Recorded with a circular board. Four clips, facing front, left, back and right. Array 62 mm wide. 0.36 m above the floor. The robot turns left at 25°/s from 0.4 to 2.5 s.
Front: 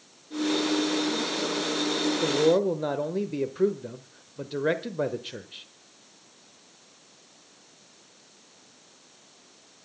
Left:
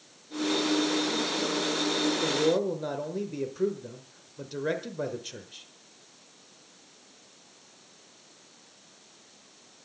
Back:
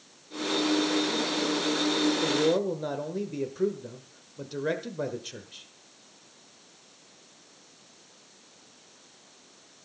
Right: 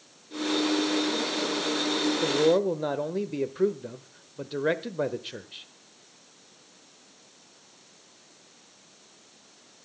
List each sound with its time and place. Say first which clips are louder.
2.2 s a man speaking: right 5 dB, front 3 dB; 40° right, 1.2 m; by 5.7 s 50° right, 1.2 m